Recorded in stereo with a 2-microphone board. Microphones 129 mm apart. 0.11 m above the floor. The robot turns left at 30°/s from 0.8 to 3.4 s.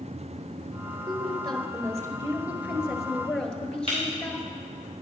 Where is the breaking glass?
40° right (ahead or behind), 4.5 m.